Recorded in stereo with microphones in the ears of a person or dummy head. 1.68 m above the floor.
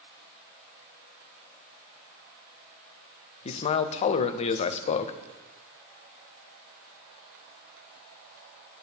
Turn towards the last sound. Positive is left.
turn(degrees=40)  # may be behind; listen again after turning